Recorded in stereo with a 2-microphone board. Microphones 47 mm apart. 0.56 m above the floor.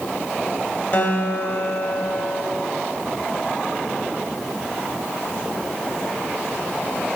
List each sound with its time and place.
0.9 s a guitar: 55° left (ahead or behind), 1.9 m